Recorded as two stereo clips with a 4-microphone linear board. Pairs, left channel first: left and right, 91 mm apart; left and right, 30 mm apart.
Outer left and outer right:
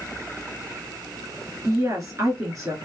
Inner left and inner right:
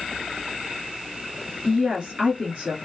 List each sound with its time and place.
1.6 s a woman speaking: 40° right (ahead or behind), 1.7 m